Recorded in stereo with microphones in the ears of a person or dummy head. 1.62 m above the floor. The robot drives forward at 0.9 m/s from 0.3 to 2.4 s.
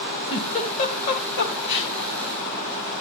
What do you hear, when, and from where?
0.3 s a giggle: 35° left (ahead or behind), 2.5 m; by 1.9 s 75° left (ahead or behind), 1.5 m